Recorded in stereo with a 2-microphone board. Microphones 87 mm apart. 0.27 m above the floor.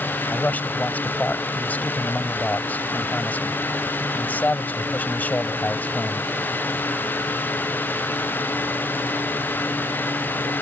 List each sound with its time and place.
0.3 s a man speaking: 20° left (ahead or behind)